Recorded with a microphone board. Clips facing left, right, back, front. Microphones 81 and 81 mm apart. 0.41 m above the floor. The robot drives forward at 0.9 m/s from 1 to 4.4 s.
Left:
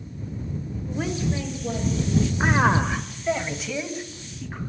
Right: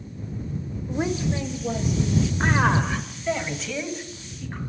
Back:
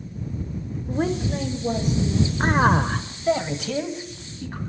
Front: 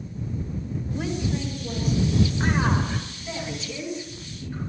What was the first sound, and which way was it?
A woman speaking, 155° right.